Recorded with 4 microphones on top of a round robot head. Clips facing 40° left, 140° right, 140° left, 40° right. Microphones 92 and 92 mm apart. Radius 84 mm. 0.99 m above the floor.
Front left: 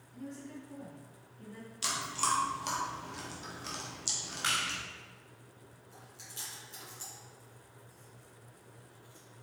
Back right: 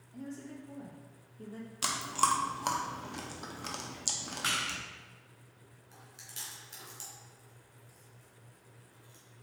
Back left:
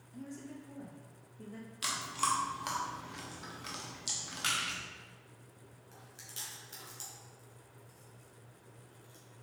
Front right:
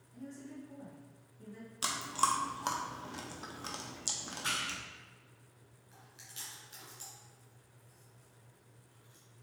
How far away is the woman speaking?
About 1.3 m.